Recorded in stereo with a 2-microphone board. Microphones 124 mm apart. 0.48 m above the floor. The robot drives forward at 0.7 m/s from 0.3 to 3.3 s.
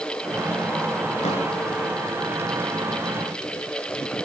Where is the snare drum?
70° left (ahead or behind), 3.5 m.